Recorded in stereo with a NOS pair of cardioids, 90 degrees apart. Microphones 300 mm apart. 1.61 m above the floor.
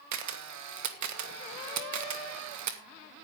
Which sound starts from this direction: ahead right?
A camera shutter, at 0.1 s.